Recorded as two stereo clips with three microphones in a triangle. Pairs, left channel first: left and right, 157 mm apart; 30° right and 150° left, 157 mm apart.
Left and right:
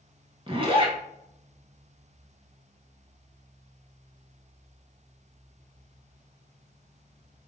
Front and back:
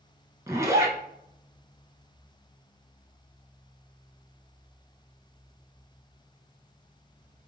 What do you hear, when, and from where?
0.5 s a zipper: 140° right, 0.9 m